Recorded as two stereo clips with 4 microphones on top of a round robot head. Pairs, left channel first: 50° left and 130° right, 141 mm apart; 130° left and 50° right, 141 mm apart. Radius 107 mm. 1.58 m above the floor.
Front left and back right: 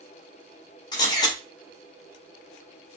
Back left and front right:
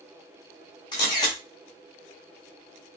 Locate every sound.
0.9 s a camera shutter: 90° left, 0.6 m